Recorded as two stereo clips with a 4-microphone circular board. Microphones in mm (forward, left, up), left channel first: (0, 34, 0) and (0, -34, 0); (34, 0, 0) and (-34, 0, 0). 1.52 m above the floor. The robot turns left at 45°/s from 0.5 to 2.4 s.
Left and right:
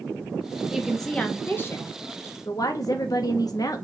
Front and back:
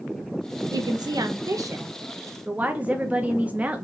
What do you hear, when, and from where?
0.7 s a woman speaking: 170° right, 0.5 m; by 3.9 s 110° left, 0.5 m